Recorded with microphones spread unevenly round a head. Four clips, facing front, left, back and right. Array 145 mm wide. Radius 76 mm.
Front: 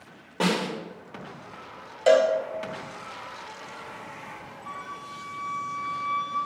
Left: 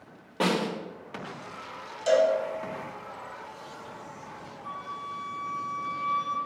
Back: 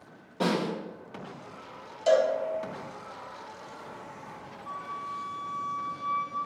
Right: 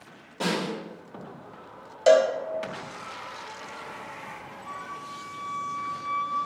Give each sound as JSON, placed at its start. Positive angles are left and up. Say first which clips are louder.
{"t": 0.4, "sound": "a snare drum", "louder": "left 2 dB, front 1 dB", "azimuth_deg": 35, "distance_m": 2.5}
{"t": 2.1, "sound": "a cowbell", "louder": "right 4 dB, front 4 dB", "azimuth_deg": -50, "distance_m": 0.9}
{"t": 4.6, "sound": "a flute", "louder": "left 2 dB, back 2 dB", "azimuth_deg": 95, "distance_m": 2.5}